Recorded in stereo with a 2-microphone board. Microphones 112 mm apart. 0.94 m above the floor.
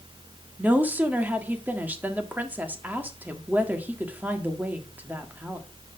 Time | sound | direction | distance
0.6 | a woman speaking | 15° right (ahead or behind) | 1.7 m